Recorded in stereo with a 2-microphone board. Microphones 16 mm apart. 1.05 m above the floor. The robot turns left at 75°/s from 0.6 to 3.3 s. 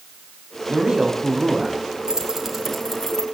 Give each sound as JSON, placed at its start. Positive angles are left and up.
{"t": 0.7, "sound": "a man speaking", "azimuth_deg": -85, "distance_m": 6.0}
{"t": 2.1, "sound": "keys jangling", "side_deg": -45, "distance_m": 5.5}